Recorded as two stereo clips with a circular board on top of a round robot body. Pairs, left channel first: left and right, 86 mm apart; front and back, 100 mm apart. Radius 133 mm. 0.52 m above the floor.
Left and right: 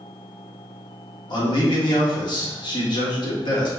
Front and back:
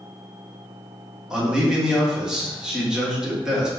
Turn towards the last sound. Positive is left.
turn(degrees=95)